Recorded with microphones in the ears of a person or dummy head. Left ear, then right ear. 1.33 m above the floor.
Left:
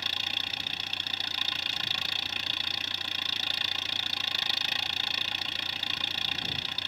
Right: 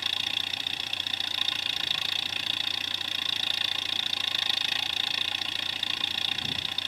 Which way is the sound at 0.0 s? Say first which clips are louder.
Right 1 dB; centre (ahead or behind).